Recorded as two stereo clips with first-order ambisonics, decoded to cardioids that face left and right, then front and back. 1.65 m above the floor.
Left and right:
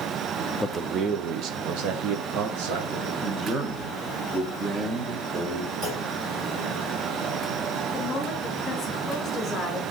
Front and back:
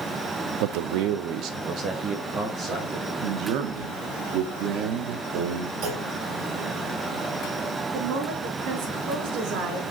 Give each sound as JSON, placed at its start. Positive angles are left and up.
{"t": 0.6, "sound": "a man speaking", "azimuth_deg": 175, "distance_m": 0.6}
{"t": 3.2, "sound": "a man speaking", "azimuth_deg": -165, "distance_m": 1.3}
{"t": 5.8, "sound": "a clunk", "azimuth_deg": -150, "distance_m": 3.0}
{"t": 7.9, "sound": "a woman speaking", "azimuth_deg": 155, "distance_m": 3.5}